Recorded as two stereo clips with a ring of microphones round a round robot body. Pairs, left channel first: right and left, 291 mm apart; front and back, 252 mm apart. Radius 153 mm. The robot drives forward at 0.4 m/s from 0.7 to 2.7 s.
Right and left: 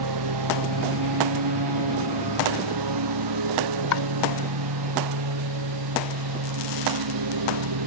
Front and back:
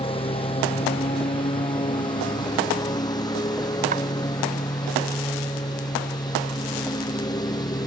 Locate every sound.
0.0 s a lawn mower: 70° left; by 7.9 s 75° left
3.9 s chopping: 115° right